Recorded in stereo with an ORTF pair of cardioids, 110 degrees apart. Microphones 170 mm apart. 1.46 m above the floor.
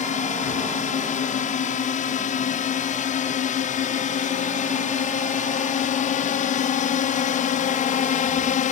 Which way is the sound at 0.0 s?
50° left.